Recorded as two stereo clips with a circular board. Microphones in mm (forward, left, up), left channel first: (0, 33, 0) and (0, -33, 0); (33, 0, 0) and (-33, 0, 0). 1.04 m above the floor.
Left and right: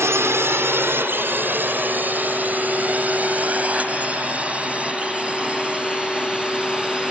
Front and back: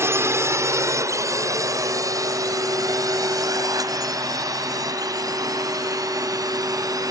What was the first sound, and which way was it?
A drone, 135° right.